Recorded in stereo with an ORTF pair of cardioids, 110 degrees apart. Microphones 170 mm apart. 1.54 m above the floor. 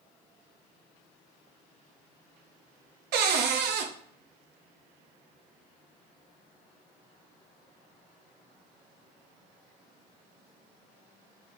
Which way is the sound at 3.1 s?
70° right.